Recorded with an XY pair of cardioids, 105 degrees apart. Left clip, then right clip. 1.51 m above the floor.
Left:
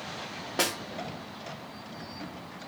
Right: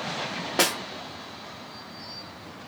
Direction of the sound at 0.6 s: 30° right.